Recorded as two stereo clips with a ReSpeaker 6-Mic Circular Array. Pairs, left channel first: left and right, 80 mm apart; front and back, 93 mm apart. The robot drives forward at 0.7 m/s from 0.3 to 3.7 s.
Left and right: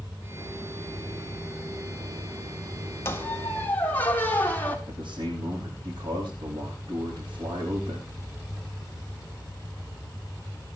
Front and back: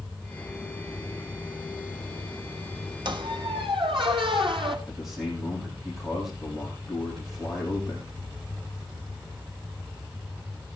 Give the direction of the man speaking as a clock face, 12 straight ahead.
3 o'clock.